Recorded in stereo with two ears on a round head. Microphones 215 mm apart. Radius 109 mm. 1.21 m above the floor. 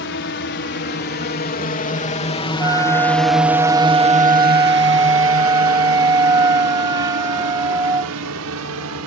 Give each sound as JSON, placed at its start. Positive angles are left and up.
{"t": 0.0, "sound": "a drone", "side_deg": 50}
{"t": 2.6, "sound": "a flute", "side_deg": -15}